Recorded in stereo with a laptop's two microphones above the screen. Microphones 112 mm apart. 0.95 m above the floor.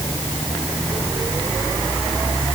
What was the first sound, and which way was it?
Only background noise.